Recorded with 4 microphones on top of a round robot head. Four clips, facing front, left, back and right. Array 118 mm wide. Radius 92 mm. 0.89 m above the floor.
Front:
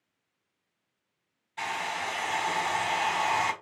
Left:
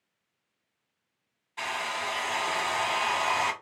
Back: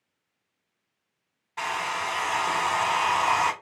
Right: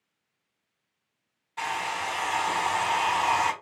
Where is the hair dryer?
170° right, 1.4 m.